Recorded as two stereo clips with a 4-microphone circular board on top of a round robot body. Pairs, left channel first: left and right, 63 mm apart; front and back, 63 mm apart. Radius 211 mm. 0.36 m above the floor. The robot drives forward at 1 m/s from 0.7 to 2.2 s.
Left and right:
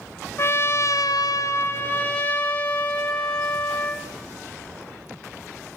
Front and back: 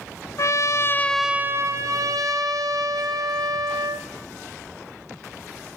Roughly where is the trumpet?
Ahead left.